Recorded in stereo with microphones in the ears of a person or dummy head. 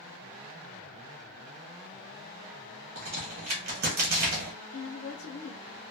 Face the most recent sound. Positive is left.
turn(degrees=45)  # may be behind; listen again after turning